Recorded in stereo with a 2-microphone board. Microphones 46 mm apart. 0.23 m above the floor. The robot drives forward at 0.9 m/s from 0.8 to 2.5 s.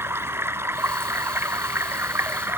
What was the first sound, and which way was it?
Running water, 65° right (ahead or behind).